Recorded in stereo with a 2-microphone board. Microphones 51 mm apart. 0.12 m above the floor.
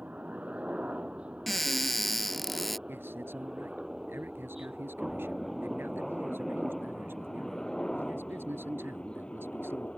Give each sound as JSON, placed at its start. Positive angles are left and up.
{"t": 0.0, "sound": "a helicopter", "side_deg": -25}
{"t": 1.5, "sound": "a cupboard door", "side_deg": 5}
{"t": 2.9, "sound": "a man speaking", "side_deg": -50}